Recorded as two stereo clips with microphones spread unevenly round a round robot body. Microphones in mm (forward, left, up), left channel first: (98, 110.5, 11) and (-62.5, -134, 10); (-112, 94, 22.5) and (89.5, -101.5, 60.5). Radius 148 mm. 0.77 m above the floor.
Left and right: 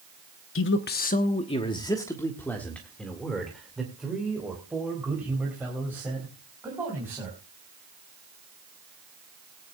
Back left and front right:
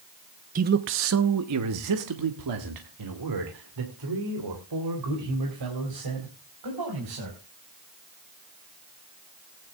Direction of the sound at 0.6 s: 20° left.